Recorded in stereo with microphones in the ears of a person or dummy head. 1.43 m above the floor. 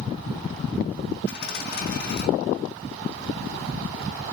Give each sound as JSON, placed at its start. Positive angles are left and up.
{"t": 1.3, "sound": "a dropped coin", "side_deg": 60, "distance_m": 2.0}